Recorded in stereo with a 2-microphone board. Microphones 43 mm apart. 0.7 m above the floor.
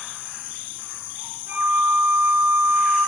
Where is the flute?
45° right (ahead or behind), 6.5 m.